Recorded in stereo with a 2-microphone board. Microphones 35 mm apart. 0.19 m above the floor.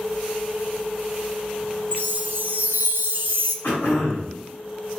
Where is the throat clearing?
60° left (ahead or behind), 1.5 m.